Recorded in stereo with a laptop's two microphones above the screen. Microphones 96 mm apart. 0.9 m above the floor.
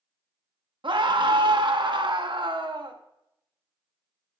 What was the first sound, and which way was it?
A scream, 55° right (ahead or behind).